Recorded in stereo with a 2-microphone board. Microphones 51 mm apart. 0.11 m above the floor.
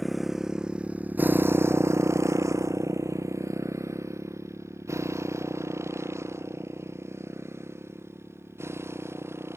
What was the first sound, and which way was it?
A motorcycle, centre (ahead or behind).